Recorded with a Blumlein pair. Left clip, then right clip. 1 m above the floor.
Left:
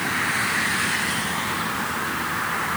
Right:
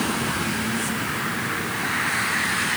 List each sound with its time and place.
Only background noise.